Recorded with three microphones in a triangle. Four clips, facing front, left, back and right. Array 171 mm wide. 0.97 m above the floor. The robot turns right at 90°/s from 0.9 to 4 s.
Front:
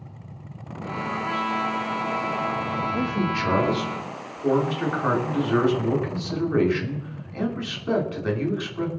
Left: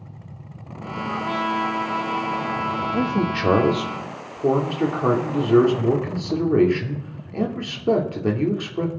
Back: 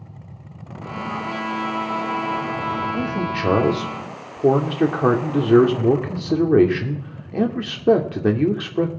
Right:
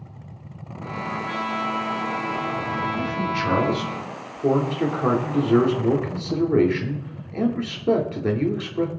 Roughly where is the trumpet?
Left.